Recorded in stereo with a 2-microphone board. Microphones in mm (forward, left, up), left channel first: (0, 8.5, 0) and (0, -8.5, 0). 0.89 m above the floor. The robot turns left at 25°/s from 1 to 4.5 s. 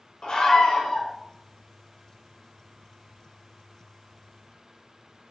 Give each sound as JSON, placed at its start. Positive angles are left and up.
{"t": 0.2, "sound": "a scream", "side_deg": 50, "distance_m": 4.0}